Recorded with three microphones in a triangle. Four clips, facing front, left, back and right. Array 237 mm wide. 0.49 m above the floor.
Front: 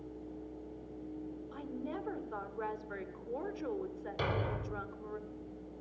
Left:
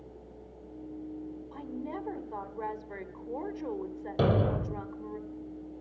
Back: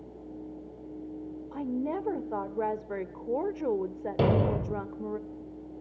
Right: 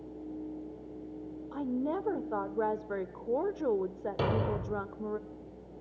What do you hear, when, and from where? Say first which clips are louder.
1.5 s a woman speaking: right 8 dB, back 11 dB; 140° right, 1.2 m
4.2 s a thud: left 4 dB, back 11 dB; 145° left, 0.9 m